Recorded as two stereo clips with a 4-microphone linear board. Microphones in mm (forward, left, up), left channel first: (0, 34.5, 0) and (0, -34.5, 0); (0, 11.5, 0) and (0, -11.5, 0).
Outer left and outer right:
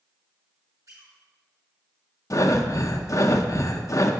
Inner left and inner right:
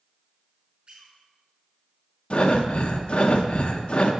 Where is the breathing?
50° left (ahead or behind), 0.5 m.